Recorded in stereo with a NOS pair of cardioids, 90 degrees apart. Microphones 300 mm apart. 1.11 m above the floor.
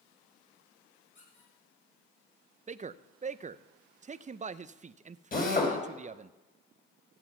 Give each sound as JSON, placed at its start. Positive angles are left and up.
{"t": 1.1, "sound": "a squeak", "azimuth_deg": 40, "distance_m": 7.5}
{"t": 2.7, "sound": "a man speaking", "azimuth_deg": -25, "distance_m": 0.6}
{"t": 5.3, "sound": "a drill", "azimuth_deg": 30, "distance_m": 5.0}